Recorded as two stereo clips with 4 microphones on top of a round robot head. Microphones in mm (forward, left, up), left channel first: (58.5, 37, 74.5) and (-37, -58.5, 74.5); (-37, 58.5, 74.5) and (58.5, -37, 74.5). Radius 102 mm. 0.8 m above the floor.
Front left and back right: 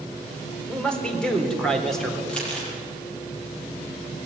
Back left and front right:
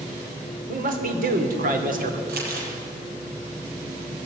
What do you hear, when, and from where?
0.7 s a man speaking: 35° right, 4 m; by 2.2 s 40° right, 3.5 m
2.3 s crumpling: 35° right, 6.5 m